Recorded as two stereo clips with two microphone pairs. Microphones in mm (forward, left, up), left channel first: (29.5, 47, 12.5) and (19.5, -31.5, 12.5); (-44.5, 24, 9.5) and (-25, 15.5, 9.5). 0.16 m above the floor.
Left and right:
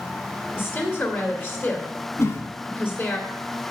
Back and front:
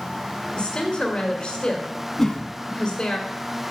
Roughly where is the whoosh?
Left.